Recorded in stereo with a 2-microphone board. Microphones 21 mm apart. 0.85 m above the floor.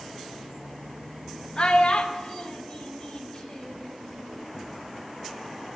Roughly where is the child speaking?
Left.